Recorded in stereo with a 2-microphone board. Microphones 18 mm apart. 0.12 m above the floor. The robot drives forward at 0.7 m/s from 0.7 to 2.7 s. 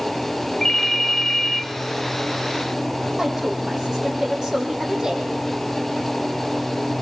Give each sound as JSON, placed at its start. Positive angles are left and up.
{"t": 0.6, "sound": "a ringtone", "side_deg": 15, "distance_m": 0.8}
{"t": 3.2, "sound": "a woman speaking", "side_deg": -30, "distance_m": 5.5}